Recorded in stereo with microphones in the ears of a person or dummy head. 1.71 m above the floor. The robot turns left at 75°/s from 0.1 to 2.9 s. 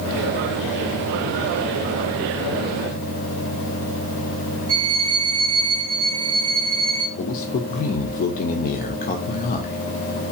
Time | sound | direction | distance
4.7 | a violin | 15° right (ahead or behind) | 3 m
7.2 | a man speaking | 45° left (ahead or behind) | 0.8 m